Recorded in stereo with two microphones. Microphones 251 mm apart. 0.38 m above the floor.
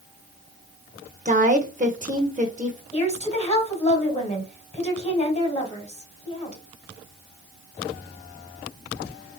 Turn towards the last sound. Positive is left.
turn(degrees=25)  # may be behind; listen again after turning